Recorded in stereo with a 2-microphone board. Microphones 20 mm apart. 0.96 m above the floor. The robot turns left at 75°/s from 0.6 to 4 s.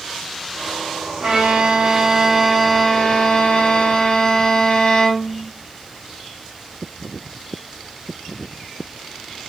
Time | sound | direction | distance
1.2 | a violin | 90° right | 0.7 m